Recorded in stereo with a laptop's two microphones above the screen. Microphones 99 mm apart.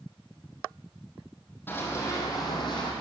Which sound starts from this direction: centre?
Running footsteps, at 1.7 s.